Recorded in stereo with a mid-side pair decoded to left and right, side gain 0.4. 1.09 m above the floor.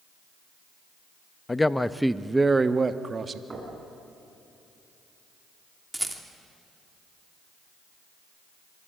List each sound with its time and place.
1.5 s a man speaking: 25° left, 0.9 m; by 3.4 s 45° right, 1.7 m
3.5 s knocking: 30° right, 8 m
5.9 s a rattle: 10° right, 3 m